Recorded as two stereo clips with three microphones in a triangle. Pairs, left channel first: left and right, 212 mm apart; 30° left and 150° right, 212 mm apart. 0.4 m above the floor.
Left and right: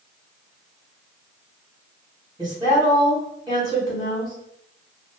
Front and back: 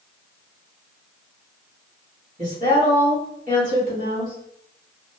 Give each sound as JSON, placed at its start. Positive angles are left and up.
{"t": 2.4, "sound": "a woman speaking", "azimuth_deg": -150, "distance_m": 1.5}